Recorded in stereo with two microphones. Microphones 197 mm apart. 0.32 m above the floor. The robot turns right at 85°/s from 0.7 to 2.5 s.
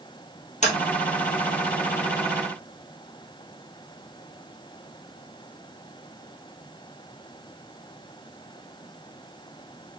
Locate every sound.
0.6 s tapping: 35° left (ahead or behind), 2.0 m